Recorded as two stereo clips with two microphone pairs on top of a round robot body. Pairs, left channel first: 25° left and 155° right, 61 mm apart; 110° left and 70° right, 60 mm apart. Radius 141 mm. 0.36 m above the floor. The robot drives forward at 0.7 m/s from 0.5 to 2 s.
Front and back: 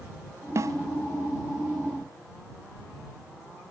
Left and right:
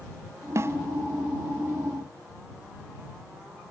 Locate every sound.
0.6 s a snare drum: 110° right; by 0.8 s 125° right